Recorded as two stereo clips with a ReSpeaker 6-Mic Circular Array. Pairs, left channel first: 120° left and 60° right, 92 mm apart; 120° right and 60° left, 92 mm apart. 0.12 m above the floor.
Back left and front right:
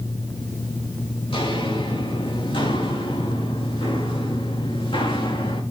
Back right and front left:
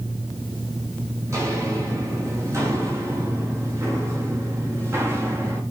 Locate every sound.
1.3 s footsteps: 115° left, 8 m; by 5.6 s 120° left, 6 m